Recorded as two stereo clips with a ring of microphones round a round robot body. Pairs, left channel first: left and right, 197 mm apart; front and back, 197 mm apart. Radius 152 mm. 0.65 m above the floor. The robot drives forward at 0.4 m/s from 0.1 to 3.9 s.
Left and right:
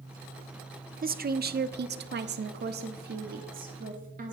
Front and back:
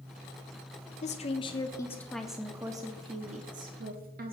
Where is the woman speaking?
50° right, 0.9 m; by 4.3 s 140° right, 1.0 m.